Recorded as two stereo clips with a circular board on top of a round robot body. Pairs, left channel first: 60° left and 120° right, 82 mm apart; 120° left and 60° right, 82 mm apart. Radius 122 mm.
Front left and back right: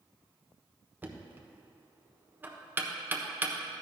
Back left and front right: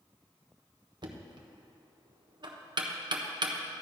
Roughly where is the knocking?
Ahead right.